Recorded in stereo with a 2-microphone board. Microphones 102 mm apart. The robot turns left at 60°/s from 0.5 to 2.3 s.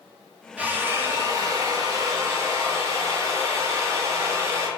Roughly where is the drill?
Ahead.